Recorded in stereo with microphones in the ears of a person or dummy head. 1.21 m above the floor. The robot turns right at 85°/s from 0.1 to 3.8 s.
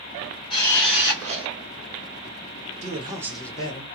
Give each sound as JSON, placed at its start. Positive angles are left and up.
{"t": 0.5, "sound": "a camera shutter", "azimuth_deg": 150, "distance_m": 1.5}
{"t": 2.8, "sound": "a man speaking", "azimuth_deg": -50, "distance_m": 1.0}